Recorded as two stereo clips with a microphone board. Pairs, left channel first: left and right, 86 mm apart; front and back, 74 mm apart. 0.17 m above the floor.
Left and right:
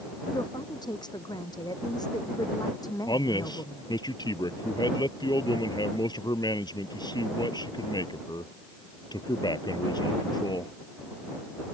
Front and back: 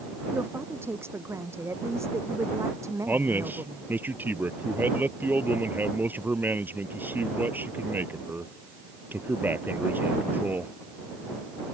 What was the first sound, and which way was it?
A woman speaking, 120° left.